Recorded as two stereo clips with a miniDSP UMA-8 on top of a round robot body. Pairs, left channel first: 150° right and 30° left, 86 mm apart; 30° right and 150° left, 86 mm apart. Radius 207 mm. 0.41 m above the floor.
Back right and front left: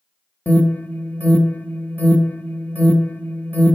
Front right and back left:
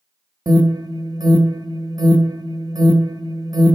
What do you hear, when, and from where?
0.5 s an alarm: 150° left, 1.1 m